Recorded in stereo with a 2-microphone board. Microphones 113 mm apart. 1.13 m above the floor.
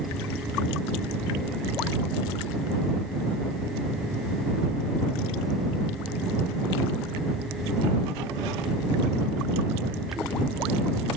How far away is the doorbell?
I don't hear a doorbell.